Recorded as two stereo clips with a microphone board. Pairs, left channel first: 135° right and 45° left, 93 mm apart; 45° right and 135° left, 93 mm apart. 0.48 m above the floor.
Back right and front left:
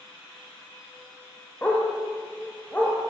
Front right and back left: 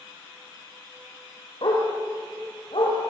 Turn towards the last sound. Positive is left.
turn(degrees=-65)